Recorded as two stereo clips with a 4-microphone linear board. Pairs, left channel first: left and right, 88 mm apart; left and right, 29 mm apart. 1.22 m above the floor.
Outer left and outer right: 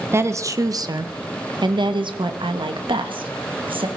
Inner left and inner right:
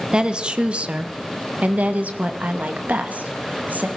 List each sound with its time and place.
0.1 s a woman speaking: 30° right (ahead or behind), 1.1 m; by 3.9 s 80° right, 2.5 m